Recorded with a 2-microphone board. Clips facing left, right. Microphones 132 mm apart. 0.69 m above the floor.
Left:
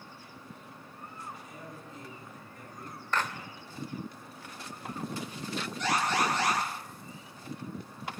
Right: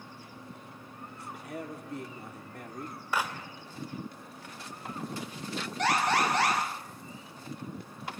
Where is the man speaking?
60° right (ahead or behind), 2.5 m.